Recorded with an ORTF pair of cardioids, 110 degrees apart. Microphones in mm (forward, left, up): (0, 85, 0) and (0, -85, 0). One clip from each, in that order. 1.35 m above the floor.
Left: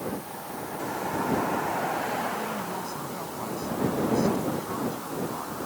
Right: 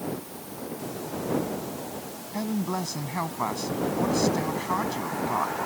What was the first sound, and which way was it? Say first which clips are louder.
A man speaking: even; 60° right.